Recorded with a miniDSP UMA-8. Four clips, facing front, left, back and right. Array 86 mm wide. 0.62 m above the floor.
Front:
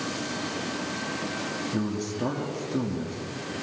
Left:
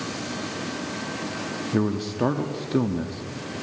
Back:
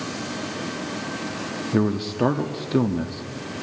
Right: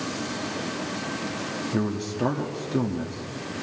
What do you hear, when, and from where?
1.7 s a man speaking: 160° left, 0.7 m